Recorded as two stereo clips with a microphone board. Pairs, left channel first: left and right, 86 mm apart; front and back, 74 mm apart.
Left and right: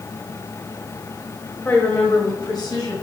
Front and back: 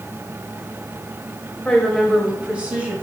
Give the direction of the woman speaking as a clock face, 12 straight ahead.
10 o'clock.